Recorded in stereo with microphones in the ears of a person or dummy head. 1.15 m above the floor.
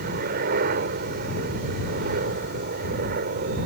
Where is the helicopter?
55° right (ahead or behind).